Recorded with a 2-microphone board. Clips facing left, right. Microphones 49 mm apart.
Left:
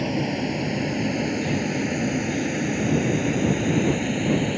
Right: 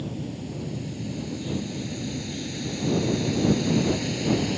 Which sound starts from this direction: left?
A vehicle, at 0.0 s.